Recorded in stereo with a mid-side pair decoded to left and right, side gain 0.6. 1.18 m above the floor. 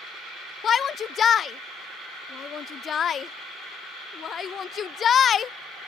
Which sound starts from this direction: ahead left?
A shout, at 0.6 s.